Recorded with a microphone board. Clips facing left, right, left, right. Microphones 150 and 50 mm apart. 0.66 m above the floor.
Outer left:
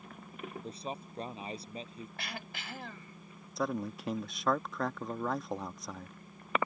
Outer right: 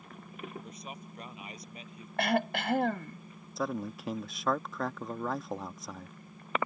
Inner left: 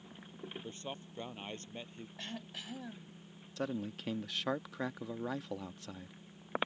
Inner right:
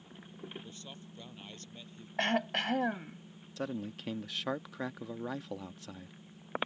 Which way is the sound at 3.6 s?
Centre (ahead or behind).